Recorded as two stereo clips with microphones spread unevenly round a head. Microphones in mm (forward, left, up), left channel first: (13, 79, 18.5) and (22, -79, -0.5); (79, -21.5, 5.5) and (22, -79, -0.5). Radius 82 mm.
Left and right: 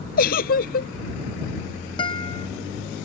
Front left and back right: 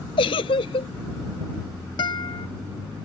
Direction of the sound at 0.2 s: 65° left.